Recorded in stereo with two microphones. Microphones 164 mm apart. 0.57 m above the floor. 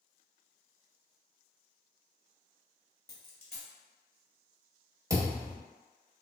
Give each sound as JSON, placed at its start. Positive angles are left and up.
{"t": 3.1, "sound": "a dropped coin", "side_deg": 65, "distance_m": 1.0}
{"t": 5.1, "sound": "a thud", "side_deg": -20, "distance_m": 1.0}